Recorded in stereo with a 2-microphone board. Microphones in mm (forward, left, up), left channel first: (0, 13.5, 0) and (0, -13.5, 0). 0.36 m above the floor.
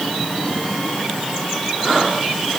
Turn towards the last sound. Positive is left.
No sound to turn to.